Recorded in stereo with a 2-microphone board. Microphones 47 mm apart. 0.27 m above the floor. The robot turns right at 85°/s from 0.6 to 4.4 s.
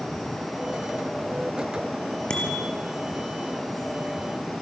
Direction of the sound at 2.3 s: 20° left.